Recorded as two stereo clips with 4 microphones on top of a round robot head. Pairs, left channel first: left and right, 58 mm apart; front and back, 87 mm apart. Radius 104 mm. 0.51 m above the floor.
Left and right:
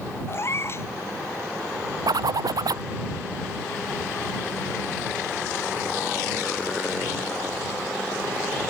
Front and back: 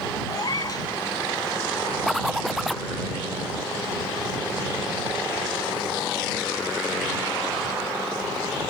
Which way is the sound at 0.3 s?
45° left.